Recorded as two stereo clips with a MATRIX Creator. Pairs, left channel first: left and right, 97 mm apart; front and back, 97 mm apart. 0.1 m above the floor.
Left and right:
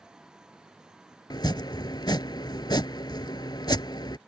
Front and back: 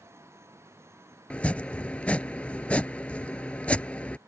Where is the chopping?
75° left.